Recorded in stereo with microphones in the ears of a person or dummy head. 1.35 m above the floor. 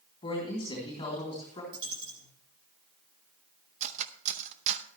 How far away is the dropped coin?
About 8.5 m.